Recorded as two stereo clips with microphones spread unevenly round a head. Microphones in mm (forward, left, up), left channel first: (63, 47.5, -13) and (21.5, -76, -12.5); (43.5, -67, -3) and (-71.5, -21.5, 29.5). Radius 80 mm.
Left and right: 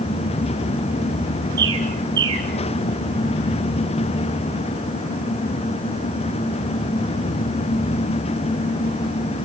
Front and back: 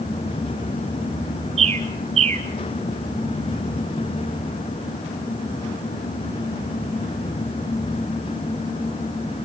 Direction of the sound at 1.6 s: 175° right.